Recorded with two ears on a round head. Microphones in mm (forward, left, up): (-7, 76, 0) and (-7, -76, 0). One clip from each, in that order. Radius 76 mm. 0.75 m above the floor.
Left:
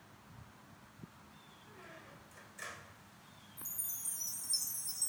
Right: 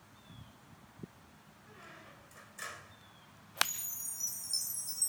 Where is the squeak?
20° right (ahead or behind), 5.5 m.